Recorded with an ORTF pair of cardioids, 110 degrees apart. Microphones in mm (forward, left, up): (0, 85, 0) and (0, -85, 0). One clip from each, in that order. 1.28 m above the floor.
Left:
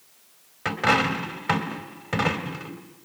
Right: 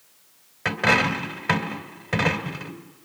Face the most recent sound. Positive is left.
turn(degrees=-5)